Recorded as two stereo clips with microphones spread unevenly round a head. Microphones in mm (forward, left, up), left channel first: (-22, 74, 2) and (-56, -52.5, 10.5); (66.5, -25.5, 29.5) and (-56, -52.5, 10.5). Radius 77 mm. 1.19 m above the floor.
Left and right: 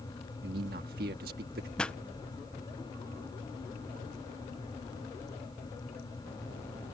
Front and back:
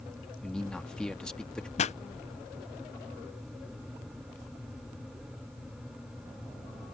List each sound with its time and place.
0.4 s a man speaking: 70° right
1.8 s a pop: straight ahead